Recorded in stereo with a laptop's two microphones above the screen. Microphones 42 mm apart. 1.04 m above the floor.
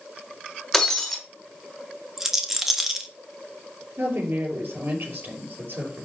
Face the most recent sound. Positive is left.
turn(degrees=-60)  # may be behind; listen again after turning